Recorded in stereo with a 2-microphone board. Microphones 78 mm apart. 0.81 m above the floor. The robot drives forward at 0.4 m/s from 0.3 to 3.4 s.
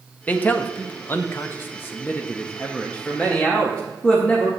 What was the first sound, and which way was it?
A man speaking, 20° left (ahead or behind).